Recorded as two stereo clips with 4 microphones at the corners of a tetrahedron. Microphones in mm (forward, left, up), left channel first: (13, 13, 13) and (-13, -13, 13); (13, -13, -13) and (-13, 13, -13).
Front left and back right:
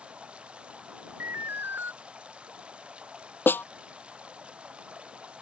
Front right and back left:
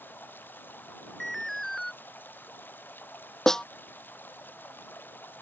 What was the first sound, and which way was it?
Running water, 75° right.